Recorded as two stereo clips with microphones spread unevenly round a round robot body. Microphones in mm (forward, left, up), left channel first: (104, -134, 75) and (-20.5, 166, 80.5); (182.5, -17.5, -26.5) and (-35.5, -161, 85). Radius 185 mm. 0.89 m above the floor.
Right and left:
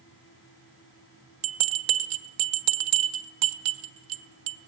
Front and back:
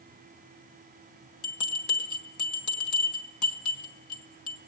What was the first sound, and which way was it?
A bell, 95° left.